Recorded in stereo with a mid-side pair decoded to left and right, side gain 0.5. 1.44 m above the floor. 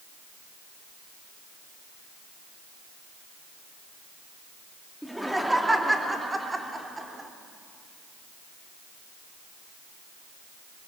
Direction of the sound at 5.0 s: Straight ahead.